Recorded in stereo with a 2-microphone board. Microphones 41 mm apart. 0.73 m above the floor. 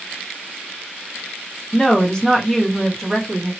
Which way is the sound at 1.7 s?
20° left (ahead or behind).